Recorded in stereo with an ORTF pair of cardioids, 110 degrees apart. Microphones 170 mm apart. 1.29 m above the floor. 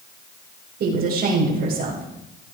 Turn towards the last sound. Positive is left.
turn(degrees=-60)